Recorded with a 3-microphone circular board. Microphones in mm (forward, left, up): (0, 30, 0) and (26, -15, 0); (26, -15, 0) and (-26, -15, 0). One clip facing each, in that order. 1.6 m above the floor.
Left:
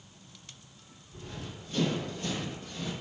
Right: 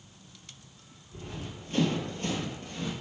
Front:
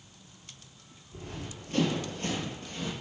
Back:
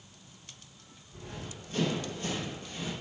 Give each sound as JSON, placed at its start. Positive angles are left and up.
{"t": 1.1, "sound": "running footsteps", "azimuth_deg": -5, "distance_m": 2.5}